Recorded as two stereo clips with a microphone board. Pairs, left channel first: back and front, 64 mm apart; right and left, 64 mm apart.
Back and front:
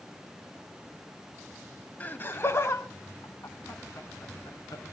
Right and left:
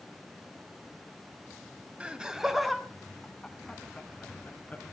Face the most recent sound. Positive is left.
turn(degrees=-155)